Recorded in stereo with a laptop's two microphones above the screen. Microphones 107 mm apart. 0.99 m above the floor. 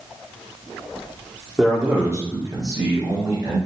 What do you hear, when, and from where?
1.6 s a man speaking: 5° right (ahead or behind), 0.7 m; by 3.6 s 35° right (ahead or behind), 1.7 m